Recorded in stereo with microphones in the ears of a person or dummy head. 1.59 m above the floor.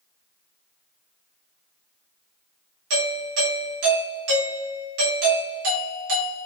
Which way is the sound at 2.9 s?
65° right (ahead or behind).